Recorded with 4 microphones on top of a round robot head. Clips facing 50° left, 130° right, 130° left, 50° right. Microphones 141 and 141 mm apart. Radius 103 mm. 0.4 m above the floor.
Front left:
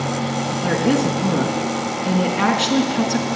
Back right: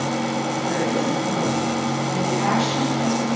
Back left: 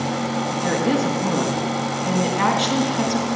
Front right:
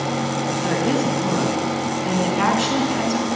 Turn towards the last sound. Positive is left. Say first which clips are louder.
# front left 7 dB, even
turn(degrees=35)